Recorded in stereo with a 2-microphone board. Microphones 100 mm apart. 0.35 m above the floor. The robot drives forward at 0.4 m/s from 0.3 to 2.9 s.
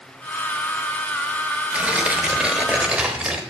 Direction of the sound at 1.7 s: 10° right (ahead or behind).